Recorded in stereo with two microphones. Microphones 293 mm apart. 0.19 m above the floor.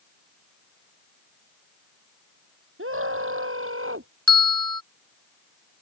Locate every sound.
2.8 s a scream: 45° right (ahead or behind)
4.3 s a bell: 45° right (ahead or behind)